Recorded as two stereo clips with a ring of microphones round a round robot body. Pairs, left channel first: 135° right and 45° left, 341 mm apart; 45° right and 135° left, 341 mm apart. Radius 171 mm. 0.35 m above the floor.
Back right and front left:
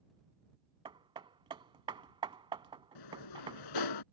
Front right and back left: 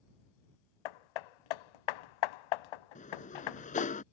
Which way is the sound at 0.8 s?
30° right.